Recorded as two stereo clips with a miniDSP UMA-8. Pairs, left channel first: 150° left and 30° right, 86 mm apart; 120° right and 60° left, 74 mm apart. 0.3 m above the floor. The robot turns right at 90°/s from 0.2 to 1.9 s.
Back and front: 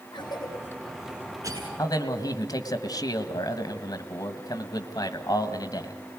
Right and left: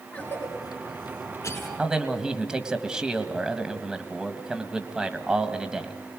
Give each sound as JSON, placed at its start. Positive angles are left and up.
{"t": 0.1, "sound": "a cough", "azimuth_deg": 170, "distance_m": 4.0}
{"t": 1.8, "sound": "a man speaking", "azimuth_deg": 125, "distance_m": 1.7}